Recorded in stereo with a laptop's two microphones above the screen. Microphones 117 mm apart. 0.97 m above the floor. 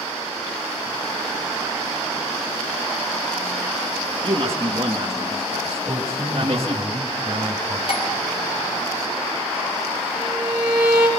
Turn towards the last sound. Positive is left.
turn(degrees=-10)  # may be behind; listen again after turning